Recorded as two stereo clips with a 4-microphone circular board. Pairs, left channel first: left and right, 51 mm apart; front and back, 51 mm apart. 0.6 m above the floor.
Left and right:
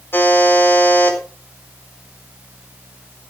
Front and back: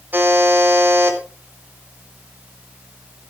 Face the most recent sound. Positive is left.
turn(degrees=130)